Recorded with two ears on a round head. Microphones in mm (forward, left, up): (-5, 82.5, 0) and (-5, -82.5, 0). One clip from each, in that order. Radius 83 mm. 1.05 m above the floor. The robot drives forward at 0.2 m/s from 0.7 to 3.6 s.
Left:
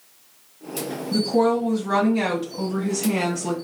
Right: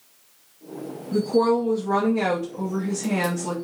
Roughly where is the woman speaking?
Left.